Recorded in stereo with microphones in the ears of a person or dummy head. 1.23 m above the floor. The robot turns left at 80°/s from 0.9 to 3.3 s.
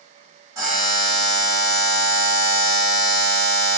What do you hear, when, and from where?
0.6 s a buzzer: 160° right, 1.6 m; by 3.8 s 5° left, 1.6 m